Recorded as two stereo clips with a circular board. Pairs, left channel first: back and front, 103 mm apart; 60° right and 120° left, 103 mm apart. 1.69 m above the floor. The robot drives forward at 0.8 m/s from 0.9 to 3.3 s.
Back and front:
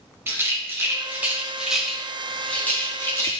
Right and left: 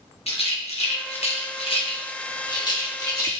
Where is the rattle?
65° right, 2 m; by 3.4 s 120° right, 2.5 m.